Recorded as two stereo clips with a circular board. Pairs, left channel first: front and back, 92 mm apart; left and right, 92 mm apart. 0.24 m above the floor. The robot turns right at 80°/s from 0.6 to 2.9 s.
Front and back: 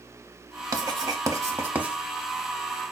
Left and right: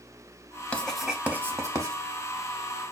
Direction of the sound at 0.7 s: 160° left.